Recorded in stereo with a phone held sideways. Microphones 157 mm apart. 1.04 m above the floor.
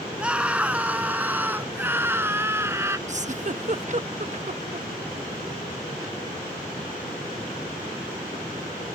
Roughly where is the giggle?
Right.